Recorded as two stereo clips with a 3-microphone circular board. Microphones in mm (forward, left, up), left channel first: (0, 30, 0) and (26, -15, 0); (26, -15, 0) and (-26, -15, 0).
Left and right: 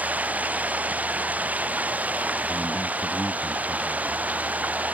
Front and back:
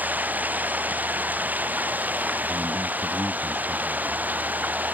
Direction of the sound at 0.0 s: 120° right.